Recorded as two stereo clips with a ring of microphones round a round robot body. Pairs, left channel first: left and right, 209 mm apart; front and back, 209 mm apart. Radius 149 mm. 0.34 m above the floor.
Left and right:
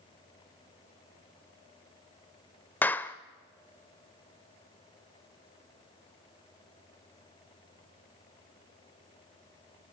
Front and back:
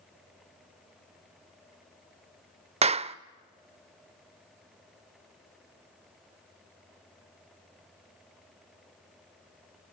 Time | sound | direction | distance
2.8 | a clap | 165° left | 0.7 m